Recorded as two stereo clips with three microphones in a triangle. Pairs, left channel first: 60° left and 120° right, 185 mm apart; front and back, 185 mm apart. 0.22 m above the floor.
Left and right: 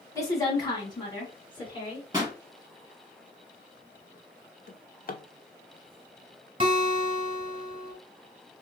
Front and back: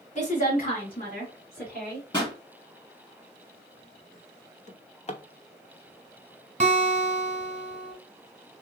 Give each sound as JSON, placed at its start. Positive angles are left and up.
{"t": 0.1, "sound": "a woman speaking", "azimuth_deg": -5, "distance_m": 1.4}
{"t": 2.1, "sound": "a pop", "azimuth_deg": -55, "distance_m": 1.3}
{"t": 4.7, "sound": "a drawer", "azimuth_deg": 45, "distance_m": 0.5}
{"t": 6.6, "sound": "a guitar", "azimuth_deg": -165, "distance_m": 1.0}